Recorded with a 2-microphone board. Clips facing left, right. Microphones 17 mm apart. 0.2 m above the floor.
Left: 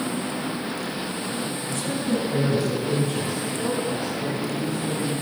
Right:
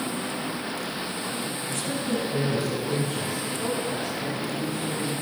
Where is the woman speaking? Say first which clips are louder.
Left 3 dB; 10° right (ahead or behind), 1.1 m; by 5.2 s 50° left (ahead or behind), 6 m.